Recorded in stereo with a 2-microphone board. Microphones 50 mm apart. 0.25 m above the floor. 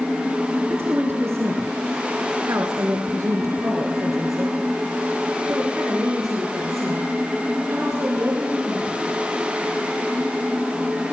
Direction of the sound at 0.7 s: 50° right (ahead or behind).